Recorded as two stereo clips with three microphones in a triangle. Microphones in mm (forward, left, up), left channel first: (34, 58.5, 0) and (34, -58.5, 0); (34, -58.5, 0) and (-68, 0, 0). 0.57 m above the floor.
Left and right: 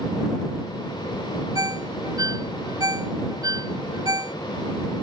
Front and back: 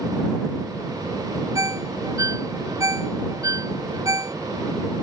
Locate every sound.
1.6 s a ringtone: 150° right